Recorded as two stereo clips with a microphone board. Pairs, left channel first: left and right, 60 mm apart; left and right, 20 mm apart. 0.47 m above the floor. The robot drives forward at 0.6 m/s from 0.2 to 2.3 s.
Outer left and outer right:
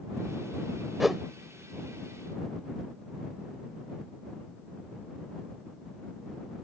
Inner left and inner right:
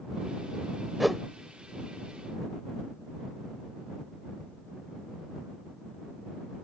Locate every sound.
1.0 s a whoosh: 5° right (ahead or behind); by 1.2 s centre (ahead or behind)